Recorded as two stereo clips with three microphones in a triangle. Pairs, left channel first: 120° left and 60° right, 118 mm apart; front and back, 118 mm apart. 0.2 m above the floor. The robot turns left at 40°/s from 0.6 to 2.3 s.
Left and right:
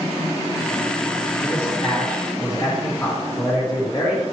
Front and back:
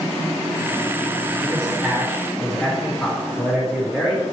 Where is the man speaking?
125° left, 1.9 m; by 4.2 s 90° left, 1.9 m.